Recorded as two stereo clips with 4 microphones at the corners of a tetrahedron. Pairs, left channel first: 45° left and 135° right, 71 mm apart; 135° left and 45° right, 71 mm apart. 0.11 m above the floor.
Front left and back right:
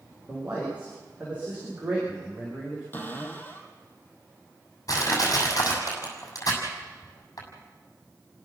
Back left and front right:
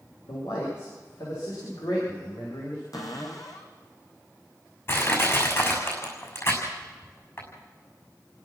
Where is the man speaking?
155° left, 9 m.